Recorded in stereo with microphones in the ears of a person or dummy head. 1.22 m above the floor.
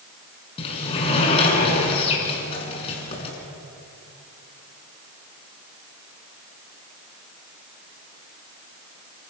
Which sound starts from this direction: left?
A sliding door, at 0.6 s.